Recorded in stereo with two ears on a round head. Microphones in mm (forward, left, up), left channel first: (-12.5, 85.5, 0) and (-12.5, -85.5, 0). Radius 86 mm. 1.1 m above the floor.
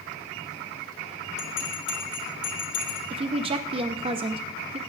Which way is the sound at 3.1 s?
30° right (ahead or behind).